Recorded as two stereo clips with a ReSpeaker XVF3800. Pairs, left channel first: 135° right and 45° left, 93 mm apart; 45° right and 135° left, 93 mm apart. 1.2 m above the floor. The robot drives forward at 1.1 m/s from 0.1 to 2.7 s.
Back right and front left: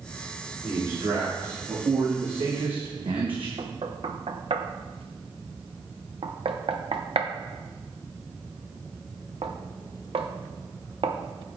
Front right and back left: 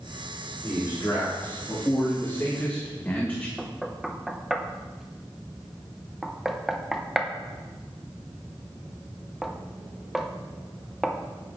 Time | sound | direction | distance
0.6 | a man speaking | 5° left | 3 m
3.6 | knocking | 50° left | 0.6 m